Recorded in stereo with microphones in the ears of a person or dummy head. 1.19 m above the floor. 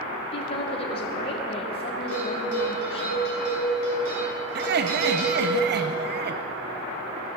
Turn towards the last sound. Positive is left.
turn(degrees=-50)  # may be behind; listen again after turning